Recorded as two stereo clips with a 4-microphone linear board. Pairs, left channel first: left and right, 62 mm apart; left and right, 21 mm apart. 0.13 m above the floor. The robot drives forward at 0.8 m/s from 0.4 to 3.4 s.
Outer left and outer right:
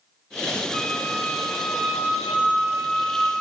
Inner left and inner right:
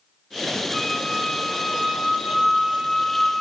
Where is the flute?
10° left (ahead or behind), 0.9 m; by 3.3 s 5° left (ahead or behind), 3 m.